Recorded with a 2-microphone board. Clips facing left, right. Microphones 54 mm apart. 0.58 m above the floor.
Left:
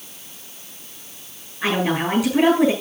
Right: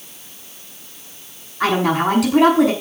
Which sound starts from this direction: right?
A woman speaking, at 1.6 s.